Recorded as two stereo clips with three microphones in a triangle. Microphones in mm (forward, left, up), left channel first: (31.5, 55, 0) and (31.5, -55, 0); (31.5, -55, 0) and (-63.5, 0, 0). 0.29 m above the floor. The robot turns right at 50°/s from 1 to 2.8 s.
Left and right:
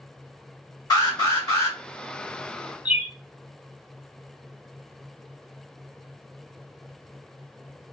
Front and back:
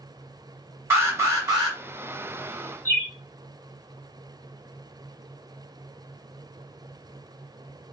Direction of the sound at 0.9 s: 100° left.